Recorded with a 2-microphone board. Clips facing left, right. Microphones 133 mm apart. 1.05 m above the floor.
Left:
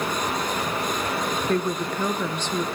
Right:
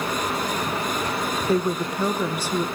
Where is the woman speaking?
10° right (ahead or behind), 0.8 m.